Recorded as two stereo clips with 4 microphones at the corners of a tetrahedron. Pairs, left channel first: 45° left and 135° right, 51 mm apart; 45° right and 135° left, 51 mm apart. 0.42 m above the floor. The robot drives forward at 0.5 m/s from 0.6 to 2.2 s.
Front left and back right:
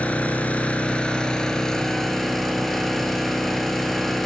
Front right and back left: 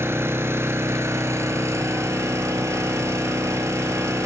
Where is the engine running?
105° left, 1.5 m; by 4.3 s 130° left, 1.9 m.